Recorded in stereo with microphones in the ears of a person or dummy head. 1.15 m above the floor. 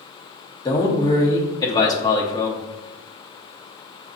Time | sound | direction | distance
0.7 | a man speaking | 20° left (ahead or behind) | 0.8 m